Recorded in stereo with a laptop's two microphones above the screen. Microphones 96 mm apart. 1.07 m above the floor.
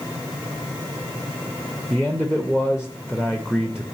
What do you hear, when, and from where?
1.9 s a man speaking: 5° right (ahead or behind), 0.5 m